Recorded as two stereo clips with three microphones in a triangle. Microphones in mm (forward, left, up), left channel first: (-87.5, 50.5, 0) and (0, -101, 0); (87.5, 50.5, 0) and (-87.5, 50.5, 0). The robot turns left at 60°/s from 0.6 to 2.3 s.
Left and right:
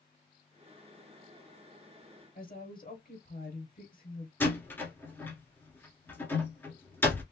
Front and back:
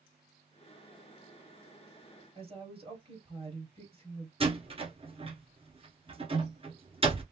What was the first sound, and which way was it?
A woman speaking, 130° left.